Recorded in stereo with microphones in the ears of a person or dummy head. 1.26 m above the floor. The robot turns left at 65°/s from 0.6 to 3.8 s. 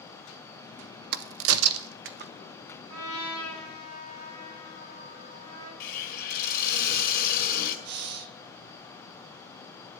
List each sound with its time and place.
1.1 s a crack: 55° right (ahead or behind), 0.9 m; by 2.3 s 45° right (ahead or behind), 0.9 m
2.9 s a trumpet: 155° right, 7 m; by 5.7 s 150° left, 7 m
5.8 s a hiss: 45° left (ahead or behind), 2 m
7.8 s breathing: 55° right (ahead or behind), 1.0 m